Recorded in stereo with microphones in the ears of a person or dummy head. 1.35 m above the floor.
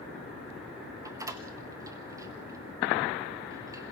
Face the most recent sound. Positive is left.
turn(degrees=-25)  # may be behind; listen again after turning